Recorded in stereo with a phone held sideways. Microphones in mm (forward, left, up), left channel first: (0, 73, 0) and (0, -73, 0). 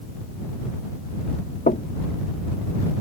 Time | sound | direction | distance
1.7 | knocking | 80° left | ?